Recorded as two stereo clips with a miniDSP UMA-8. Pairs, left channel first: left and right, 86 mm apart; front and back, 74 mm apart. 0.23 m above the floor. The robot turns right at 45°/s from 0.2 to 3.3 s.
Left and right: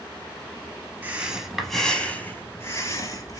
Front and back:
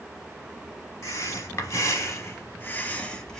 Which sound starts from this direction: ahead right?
Breathing, at 1.0 s.